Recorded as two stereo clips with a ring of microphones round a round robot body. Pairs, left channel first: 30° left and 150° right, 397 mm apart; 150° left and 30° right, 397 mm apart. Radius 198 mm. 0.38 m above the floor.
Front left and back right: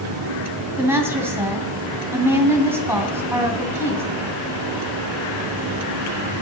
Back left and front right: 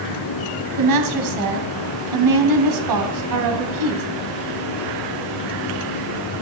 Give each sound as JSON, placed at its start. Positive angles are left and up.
{"t": 0.8, "sound": "a woman speaking", "azimuth_deg": -65, "distance_m": 2.5}